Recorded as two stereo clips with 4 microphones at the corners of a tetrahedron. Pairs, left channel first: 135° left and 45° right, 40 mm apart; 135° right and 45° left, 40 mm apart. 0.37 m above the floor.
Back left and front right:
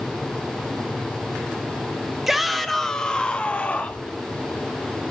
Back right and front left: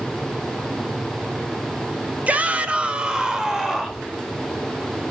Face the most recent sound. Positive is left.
turn(degrees=135)